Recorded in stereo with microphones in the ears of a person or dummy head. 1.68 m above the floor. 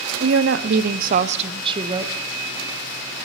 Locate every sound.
0.2 s a woman speaking: 80° right, 1.0 m; by 2.1 s 15° right (ahead or behind), 1.2 m